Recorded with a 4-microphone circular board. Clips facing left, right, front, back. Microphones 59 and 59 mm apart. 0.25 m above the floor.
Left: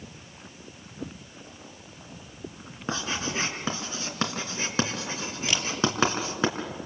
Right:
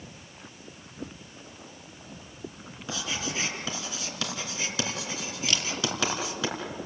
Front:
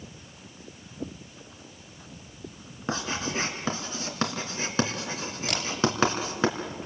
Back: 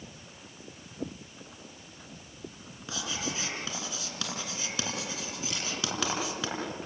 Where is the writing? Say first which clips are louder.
Left 3 dB, front 6 dB; 40° left, 3.5 m.